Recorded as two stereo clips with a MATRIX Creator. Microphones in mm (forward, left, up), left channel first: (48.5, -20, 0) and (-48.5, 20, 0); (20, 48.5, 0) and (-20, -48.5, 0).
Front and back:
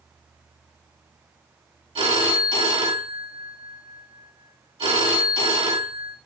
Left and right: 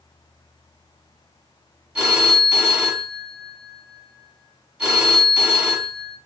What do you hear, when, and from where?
1.9 s a phone ringing: 170° left, 1.1 m